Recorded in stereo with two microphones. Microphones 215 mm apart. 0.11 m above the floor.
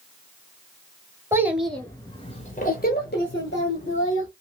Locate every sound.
1.3 s a child speaking: 10° right (ahead or behind), 1.0 m; by 4.3 s 65° left (ahead or behind), 1.8 m